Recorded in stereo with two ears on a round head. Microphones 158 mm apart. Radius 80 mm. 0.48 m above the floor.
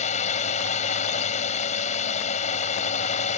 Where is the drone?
40° left (ahead or behind).